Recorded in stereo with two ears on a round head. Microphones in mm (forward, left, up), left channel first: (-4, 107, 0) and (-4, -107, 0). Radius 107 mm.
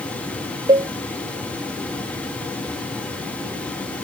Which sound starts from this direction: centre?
A cowbell, at 0.7 s.